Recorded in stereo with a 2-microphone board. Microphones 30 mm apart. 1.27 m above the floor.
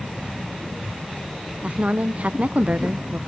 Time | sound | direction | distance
1.6 | a woman speaking | 50° right (ahead or behind) | 0.9 m